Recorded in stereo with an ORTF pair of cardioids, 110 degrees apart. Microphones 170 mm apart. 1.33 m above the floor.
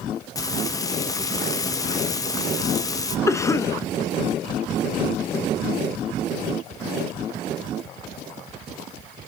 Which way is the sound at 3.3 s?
15° left.